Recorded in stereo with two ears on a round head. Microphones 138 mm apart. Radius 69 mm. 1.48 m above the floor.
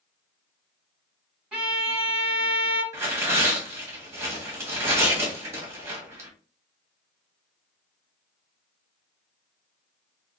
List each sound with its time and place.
1.5 s a violin: 10° right (ahead or behind), 3 m
2.9 s tearing paper: 20° right (ahead or behind), 1.8 m